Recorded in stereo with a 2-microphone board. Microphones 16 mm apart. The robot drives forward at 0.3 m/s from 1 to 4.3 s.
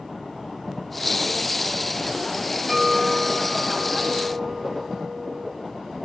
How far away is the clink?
About 0.6 m.